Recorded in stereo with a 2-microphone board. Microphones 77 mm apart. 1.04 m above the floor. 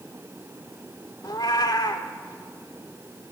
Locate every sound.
1.2 s a cat meowing: 65° left (ahead or behind), 1.6 m